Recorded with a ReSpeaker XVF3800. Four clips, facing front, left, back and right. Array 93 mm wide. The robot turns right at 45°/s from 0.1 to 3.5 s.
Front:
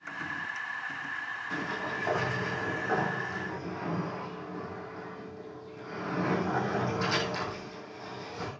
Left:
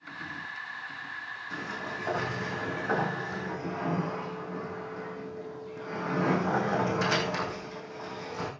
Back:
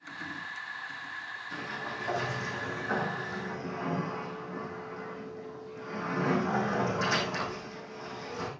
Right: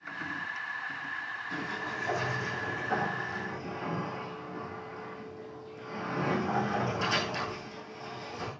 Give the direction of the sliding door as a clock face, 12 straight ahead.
12 o'clock.